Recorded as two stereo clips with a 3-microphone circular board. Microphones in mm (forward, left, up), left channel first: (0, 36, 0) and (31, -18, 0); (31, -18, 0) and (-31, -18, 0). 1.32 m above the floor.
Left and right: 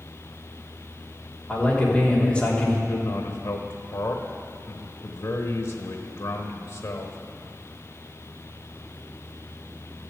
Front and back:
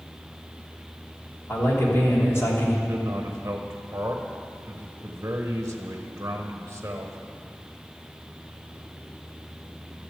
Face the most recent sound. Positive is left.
turn(degrees=135)